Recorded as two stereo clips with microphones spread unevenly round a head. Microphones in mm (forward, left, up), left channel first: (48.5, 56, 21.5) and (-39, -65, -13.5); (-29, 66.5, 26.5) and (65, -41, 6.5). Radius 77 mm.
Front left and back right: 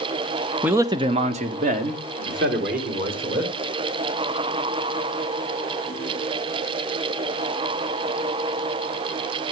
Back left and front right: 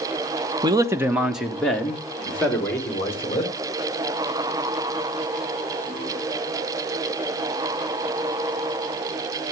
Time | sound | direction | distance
0.6 | a man speaking | 70° right | 0.9 m